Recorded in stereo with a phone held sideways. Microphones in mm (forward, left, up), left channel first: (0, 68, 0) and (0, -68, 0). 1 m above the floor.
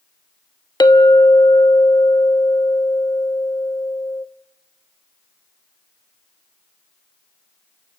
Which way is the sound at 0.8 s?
30° left (ahead or behind).